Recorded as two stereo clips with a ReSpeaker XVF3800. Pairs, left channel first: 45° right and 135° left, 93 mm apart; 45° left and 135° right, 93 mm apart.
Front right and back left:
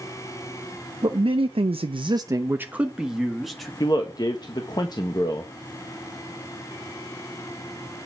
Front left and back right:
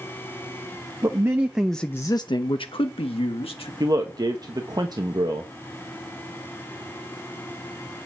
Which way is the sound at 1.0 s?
170° left.